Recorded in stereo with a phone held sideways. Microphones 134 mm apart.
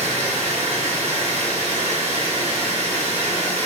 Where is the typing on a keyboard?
I don't hear typing on a keyboard.